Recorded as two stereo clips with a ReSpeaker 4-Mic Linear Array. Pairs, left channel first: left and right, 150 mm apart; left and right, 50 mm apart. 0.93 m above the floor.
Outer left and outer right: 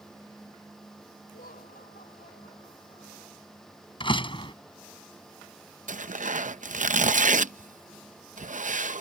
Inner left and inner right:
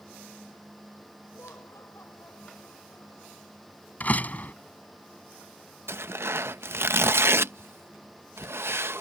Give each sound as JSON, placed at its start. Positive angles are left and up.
{"t": 1.3, "sound": "laughter", "side_deg": 80}
{"t": 4.0, "sound": "a door slam", "side_deg": 35}
{"t": 5.9, "sound": "tearing paper", "side_deg": -60}